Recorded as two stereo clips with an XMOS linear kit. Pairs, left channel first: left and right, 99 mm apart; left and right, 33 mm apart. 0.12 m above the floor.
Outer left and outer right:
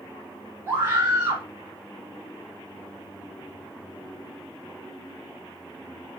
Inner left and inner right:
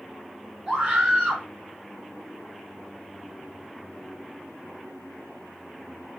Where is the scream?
25° right (ahead or behind), 1.8 m.